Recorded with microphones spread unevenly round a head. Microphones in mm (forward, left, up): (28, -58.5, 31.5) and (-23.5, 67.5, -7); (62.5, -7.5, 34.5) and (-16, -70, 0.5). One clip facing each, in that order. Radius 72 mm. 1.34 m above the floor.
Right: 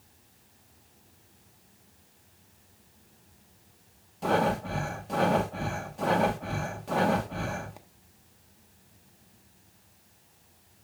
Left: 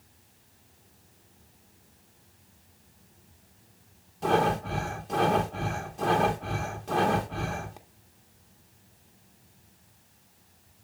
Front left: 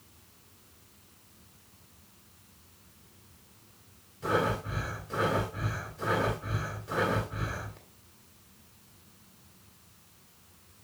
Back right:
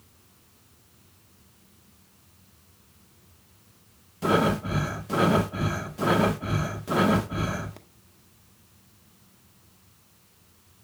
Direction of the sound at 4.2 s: 155° right.